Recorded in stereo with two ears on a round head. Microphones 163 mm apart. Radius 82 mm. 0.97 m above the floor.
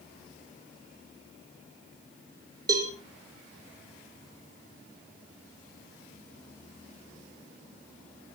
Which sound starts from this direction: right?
A cowbell, at 2.7 s.